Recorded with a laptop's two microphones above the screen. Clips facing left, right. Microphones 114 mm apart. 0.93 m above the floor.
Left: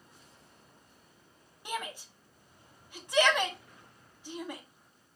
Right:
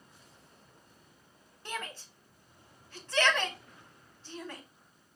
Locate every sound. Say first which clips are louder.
1.6 s a shout: left 3 dB; 15° left (ahead or behind), 0.9 m